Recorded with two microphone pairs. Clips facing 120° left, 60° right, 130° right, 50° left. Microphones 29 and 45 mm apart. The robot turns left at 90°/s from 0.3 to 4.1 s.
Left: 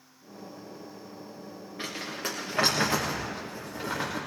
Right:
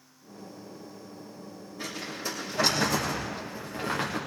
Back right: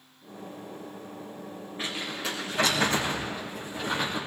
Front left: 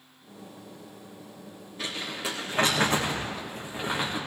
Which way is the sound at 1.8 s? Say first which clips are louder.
Left 1 dB, even; 175° left.